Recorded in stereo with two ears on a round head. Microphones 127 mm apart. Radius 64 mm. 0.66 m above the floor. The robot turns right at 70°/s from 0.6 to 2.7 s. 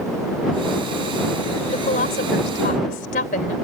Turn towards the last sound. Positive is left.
turn(degrees=110)